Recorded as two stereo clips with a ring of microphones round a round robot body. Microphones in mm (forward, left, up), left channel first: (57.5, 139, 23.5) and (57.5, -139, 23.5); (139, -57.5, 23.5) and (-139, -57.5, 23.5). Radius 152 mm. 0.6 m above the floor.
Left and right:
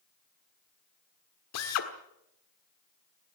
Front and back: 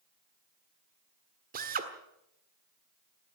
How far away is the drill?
About 1.5 m.